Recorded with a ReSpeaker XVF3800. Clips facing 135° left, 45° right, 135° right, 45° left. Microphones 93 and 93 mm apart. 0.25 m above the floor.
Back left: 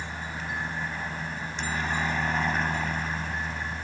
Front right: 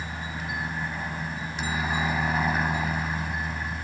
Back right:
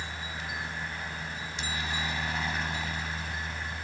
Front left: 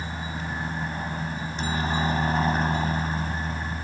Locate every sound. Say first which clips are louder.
0.0 s a helicopter: front right 1 dB, front left 5 dB; 35° left